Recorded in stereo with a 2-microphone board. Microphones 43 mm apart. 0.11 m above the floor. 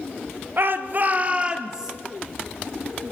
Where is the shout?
50° right (ahead or behind), 1.8 m; by 1.9 s 10° right (ahead or behind), 2 m.